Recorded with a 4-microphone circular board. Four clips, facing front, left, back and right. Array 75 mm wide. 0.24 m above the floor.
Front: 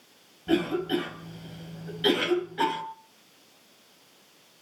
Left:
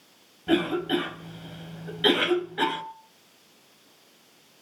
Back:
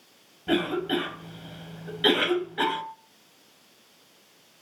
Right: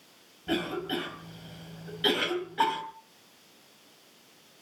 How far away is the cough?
About 1.5 m.